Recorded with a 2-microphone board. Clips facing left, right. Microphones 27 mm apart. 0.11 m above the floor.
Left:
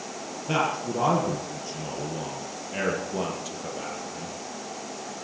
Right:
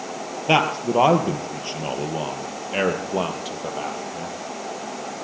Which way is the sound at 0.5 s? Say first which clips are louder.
Right 7 dB; 55° right (ahead or behind).